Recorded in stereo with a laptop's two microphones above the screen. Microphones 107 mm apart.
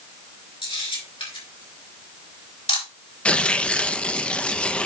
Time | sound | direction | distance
0.6 | a camera shutter | 55° left (ahead or behind) | 3.5 m
3.2 | tearing paper | 10° left (ahead or behind) | 0.6 m